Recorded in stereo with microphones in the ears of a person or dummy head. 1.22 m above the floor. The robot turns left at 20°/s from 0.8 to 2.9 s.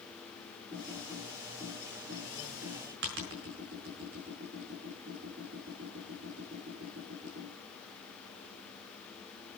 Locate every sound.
0.7 s typing on a keyboard: 20° right (ahead or behind), 5 m; by 7.5 s 60° right (ahead or behind), 5 m